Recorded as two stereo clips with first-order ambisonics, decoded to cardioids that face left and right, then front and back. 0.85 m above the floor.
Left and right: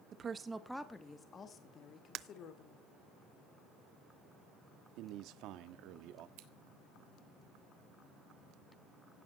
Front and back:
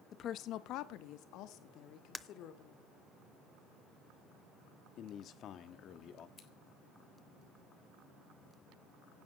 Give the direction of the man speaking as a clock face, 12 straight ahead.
2 o'clock.